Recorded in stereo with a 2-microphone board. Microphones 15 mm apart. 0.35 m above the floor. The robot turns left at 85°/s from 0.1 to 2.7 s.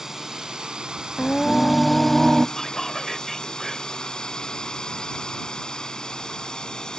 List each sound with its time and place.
0.0 s a drone: 35° right; by 7.0 s 105° left
1.2 s singing: 90° left; by 2.5 s 20° right
2.6 s whispering: 30° left (ahead or behind); by 4.0 s 20° left (ahead or behind)